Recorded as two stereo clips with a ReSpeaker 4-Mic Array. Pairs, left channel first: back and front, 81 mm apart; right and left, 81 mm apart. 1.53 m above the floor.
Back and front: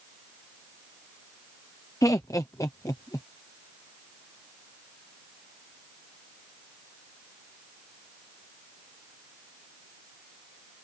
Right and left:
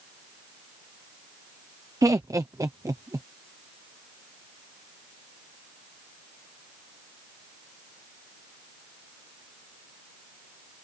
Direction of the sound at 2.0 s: 135° left.